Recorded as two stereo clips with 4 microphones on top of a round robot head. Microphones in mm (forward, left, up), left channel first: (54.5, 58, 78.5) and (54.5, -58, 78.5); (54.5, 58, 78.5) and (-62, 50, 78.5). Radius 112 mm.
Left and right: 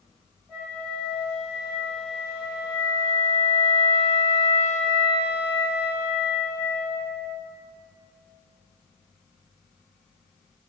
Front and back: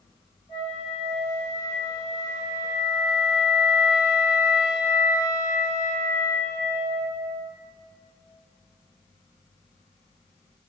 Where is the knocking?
I don't hear knocking.